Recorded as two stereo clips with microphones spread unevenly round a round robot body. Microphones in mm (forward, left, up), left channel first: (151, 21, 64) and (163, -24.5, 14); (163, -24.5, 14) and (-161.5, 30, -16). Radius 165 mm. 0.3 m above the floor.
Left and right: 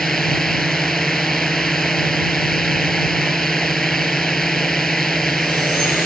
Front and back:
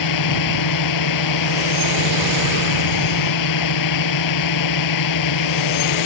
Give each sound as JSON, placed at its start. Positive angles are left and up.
{"t": 0.0, "sound": "a drone", "azimuth_deg": 25}